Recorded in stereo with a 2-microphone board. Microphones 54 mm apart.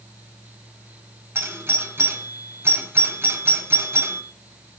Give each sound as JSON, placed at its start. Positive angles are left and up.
{"t": 1.4, "sound": "a doorbell", "side_deg": -50, "distance_m": 2.5}